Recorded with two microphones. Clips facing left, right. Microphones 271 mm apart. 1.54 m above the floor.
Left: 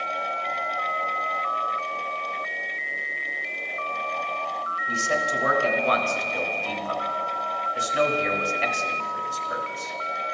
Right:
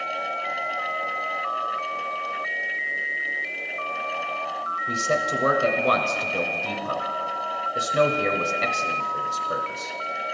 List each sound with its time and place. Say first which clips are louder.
4.9 s a man speaking: right 2 dB; 50° right (ahead or behind), 0.8 m